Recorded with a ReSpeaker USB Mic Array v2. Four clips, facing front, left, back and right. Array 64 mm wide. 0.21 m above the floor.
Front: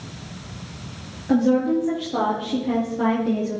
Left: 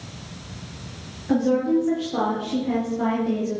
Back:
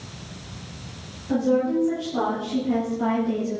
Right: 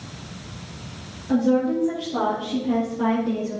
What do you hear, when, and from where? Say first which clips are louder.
1.3 s a woman speaking: even, front 3 dB; 30° left, 5 m; by 3.6 s 5° left, 5 m